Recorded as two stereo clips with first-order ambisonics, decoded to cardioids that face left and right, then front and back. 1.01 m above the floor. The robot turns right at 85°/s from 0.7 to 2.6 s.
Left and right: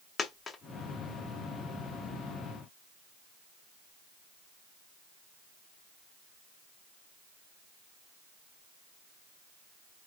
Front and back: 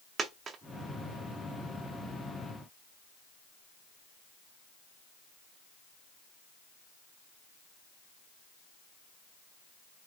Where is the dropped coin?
140° left, 0.5 m.